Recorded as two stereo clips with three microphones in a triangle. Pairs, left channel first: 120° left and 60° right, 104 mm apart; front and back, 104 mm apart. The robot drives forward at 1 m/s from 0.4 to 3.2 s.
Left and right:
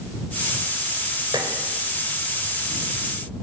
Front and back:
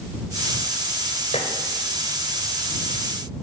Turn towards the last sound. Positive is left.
turn(degrees=-25)